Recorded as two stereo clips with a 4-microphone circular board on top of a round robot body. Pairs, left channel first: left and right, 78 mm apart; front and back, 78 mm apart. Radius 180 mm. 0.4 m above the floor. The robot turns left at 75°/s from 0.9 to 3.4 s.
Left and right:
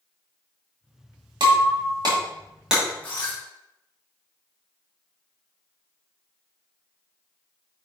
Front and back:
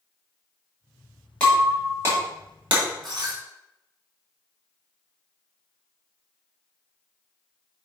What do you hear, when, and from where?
1.4 s breaking glass: 75° right, 2.5 m; by 3.4 s 140° left, 2.5 m